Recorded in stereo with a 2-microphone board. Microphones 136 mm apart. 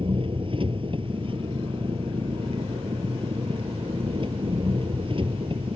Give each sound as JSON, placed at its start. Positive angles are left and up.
{"t": 0.0, "sound": "an engine running", "side_deg": -45}